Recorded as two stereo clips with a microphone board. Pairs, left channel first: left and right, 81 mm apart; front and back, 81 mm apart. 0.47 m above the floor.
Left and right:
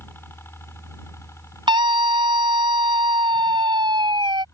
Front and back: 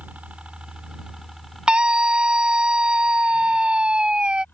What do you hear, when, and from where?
0.0 s a helicopter: 120° left; by 4.5 s 55° left
1.7 s a scream: 100° right